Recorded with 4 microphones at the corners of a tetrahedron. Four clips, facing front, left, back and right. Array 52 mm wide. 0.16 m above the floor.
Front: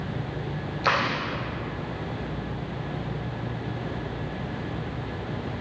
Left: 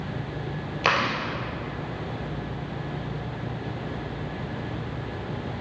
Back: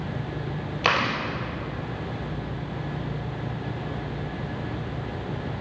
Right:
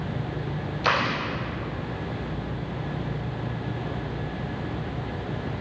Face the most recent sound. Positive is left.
turn(degrees=135)